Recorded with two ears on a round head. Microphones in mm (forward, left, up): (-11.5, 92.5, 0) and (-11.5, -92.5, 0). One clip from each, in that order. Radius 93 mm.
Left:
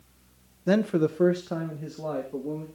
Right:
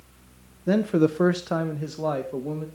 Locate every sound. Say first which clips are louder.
0.7 s a man speaking: right 2 dB; 25° left (ahead or behind), 0.5 m; by 2.6 s 65° right (ahead or behind), 2.0 m